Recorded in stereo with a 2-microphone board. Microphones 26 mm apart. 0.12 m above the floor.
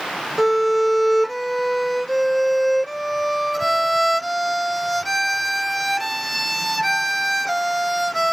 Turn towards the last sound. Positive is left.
turn(degrees=0)  # may be behind; listen again after turning